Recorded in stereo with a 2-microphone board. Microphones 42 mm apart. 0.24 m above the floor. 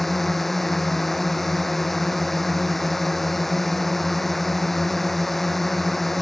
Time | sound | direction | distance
0.0 | a drone | 5° left (ahead or behind) | ?